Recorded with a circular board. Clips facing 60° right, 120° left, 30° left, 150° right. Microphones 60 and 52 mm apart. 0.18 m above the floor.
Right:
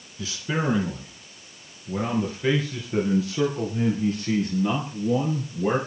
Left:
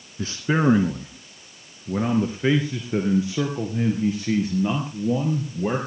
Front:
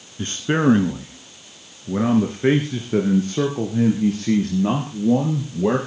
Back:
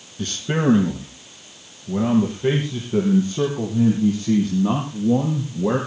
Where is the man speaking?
80° left, 2 m; by 5.8 s 45° left, 4.5 m.